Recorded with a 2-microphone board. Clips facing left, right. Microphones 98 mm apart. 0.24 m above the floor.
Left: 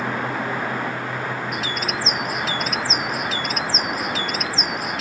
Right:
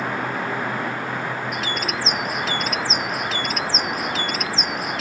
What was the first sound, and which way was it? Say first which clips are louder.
A bird: even; centre (ahead or behind).